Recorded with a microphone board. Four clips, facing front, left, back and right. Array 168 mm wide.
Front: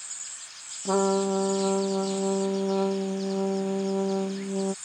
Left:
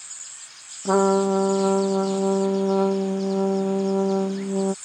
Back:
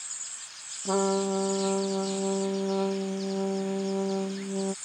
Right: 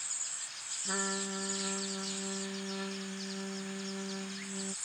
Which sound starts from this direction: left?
A trumpet, at 0.8 s.